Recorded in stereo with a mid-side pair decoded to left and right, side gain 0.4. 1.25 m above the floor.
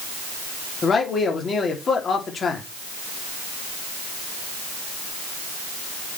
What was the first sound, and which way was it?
A man speaking, 50° left.